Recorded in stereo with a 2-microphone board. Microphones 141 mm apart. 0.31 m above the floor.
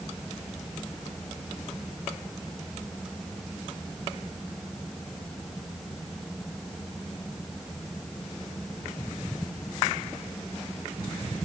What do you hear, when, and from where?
Only background noise.